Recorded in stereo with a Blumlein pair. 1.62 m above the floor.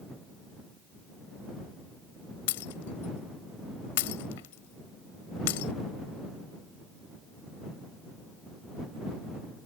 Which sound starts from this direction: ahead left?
Breaking glass, at 2.5 s.